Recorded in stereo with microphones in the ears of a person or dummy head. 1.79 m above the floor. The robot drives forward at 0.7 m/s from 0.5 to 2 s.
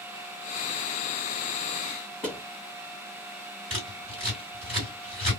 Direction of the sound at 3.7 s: 25° right (ahead or behind).